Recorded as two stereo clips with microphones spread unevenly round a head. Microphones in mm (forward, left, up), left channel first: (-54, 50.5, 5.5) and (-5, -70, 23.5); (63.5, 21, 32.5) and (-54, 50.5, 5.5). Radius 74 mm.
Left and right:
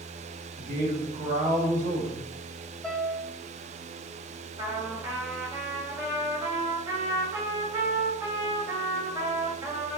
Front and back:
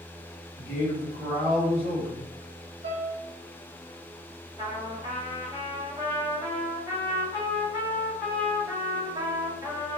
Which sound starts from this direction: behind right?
A trumpet, at 4.6 s.